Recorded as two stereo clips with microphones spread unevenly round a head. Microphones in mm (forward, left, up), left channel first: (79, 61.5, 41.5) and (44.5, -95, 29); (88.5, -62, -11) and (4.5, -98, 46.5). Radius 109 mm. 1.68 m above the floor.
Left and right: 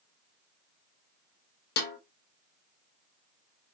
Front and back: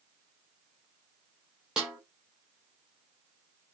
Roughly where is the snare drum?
Behind left.